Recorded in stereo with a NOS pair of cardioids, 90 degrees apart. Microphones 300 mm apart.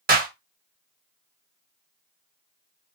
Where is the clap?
30° right, 1.2 m.